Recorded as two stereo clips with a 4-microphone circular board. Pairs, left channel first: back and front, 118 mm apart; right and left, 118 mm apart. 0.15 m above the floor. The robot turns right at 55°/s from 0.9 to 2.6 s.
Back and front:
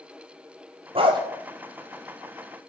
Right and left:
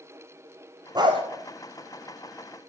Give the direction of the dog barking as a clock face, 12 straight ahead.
11 o'clock.